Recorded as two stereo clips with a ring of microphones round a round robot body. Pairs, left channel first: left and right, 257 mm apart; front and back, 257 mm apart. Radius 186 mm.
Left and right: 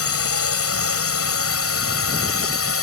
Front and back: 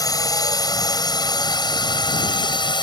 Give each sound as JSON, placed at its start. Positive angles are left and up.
{"t": 0.0, "sound": "a drone", "azimuth_deg": 75}